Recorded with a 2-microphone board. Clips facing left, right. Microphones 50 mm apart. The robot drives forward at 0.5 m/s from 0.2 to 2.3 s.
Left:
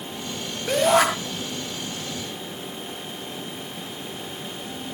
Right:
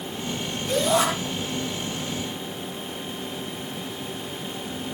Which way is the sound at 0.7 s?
80° left.